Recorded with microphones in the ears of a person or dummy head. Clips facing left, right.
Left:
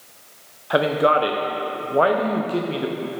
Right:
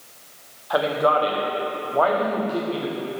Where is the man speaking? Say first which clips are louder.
Left 2 dB; 35° left (ahead or behind), 0.7 m.